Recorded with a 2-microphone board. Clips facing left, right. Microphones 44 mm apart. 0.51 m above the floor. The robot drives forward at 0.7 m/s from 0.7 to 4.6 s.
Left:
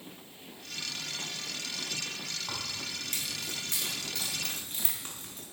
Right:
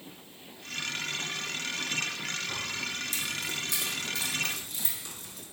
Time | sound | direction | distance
2.5 | keys jangling | 50° left (ahead or behind) | 3 m